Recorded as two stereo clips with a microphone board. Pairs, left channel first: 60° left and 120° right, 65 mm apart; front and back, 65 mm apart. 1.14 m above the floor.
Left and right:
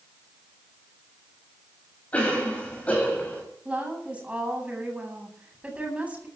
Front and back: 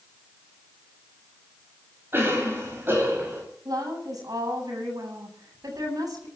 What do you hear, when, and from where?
2.1 s a cough: 130° left, 9 m
3.6 s a woman speaking: 170° left, 9 m